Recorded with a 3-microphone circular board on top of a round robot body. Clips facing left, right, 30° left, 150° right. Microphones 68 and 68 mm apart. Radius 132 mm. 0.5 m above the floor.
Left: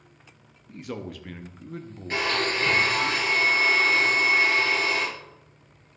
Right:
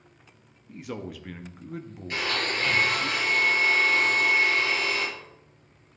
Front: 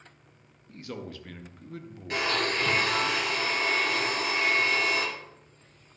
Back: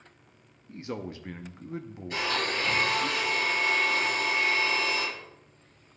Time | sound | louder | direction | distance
0.7 | a man speaking | left 1 dB, back 3 dB | 175° right | 0.8 m
2.1 | a blender | left 3 dB, front 2 dB | 30° left | 5 m